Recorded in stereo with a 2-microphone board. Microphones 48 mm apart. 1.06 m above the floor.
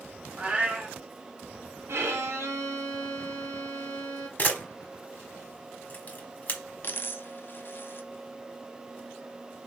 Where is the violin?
70° right (ahead or behind), 1.2 m.